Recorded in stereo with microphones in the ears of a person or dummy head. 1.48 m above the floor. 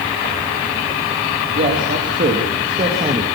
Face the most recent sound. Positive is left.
turn(degrees=-25)  # may be behind; listen again after turning